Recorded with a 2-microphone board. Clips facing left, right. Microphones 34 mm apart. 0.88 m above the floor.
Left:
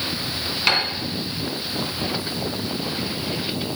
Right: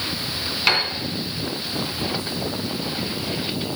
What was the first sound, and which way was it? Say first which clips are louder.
A piano: right 1 dB; centre (ahead or behind).